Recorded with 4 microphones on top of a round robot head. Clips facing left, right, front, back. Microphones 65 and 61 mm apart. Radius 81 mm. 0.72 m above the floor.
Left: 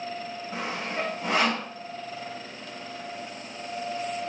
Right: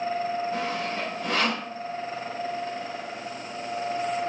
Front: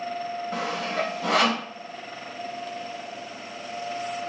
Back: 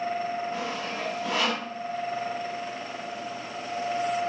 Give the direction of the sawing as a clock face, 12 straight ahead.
12 o'clock.